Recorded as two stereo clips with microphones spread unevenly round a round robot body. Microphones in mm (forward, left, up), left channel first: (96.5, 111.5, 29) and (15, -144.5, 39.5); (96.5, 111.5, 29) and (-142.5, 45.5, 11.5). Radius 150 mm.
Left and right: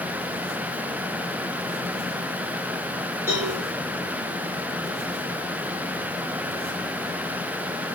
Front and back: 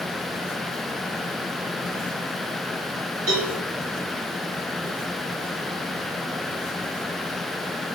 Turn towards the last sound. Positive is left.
turn(degrees=170)